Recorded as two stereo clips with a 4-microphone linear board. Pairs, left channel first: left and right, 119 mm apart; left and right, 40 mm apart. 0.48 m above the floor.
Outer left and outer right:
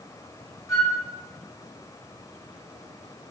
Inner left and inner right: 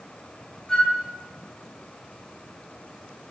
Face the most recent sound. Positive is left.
turn(degrees=25)  # may be behind; listen again after turning